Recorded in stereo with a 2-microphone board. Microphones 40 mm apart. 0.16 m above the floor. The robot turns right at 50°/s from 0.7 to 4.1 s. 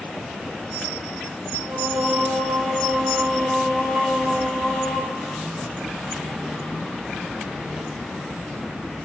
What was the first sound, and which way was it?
Singing, 115° right.